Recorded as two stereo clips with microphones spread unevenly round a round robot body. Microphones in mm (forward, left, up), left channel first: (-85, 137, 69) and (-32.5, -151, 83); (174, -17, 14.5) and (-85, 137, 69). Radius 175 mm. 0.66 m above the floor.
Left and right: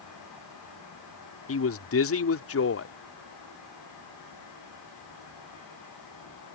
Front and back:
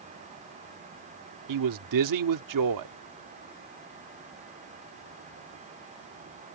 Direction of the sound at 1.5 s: 135° left.